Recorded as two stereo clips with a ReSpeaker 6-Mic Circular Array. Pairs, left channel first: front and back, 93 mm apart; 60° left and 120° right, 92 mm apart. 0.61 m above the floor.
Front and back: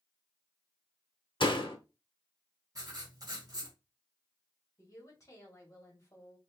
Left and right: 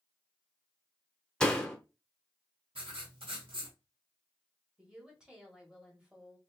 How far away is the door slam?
About 0.8 m.